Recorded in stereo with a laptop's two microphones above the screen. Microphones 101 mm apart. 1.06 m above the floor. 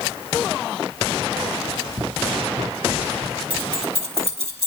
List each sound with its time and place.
1.7 s running footsteps: 20° right (ahead or behind), 1.1 m; by 3.4 s 45° right (ahead or behind), 3 m
3.5 s keys jangling: 75° right (ahead or behind), 2.5 m